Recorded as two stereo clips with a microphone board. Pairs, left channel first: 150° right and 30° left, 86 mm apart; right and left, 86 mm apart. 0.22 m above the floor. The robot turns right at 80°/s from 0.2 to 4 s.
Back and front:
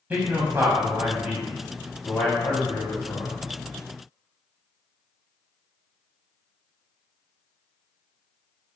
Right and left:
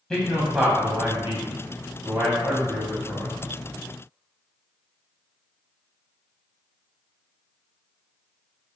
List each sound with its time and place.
0.1 s a man speaking: 15° right, 1.0 m; by 3.3 s 125° right, 1.0 m